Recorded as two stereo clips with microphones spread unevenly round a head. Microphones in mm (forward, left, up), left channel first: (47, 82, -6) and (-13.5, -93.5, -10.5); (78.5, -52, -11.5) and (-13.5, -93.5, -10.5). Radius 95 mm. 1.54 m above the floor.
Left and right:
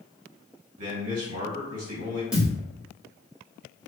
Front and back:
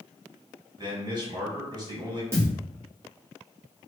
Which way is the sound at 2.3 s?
165° left.